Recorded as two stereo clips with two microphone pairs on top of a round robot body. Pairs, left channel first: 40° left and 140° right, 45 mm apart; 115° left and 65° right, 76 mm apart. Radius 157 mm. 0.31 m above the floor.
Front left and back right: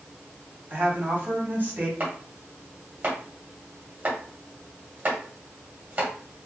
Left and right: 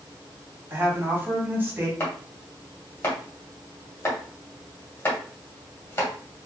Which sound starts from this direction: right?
A woman speaking, at 0.7 s.